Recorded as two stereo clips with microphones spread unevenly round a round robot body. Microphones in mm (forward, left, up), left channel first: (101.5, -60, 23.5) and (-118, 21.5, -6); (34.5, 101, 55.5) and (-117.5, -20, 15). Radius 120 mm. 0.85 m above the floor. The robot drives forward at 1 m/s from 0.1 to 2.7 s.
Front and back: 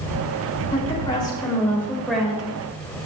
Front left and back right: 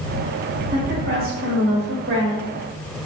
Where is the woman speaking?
90° right, 4 m; by 2.5 s 115° right, 4 m.